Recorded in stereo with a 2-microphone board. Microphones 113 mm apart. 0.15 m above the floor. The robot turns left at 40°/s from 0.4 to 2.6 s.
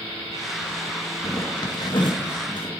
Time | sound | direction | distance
1.2 | a zipper | 35° left (ahead or behind) | 1.6 m